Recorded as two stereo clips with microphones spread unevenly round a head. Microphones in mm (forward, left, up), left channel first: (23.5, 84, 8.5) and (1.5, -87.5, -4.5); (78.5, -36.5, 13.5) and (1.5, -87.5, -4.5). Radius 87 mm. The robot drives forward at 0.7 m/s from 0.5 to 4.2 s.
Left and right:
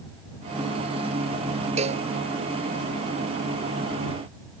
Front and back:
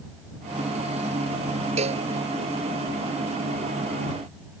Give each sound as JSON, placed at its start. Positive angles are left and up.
{"t": 1.8, "sound": "a cowbell", "azimuth_deg": -155}